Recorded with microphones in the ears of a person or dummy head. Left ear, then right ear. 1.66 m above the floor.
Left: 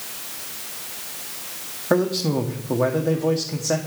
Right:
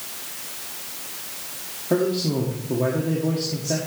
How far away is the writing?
I don't hear writing.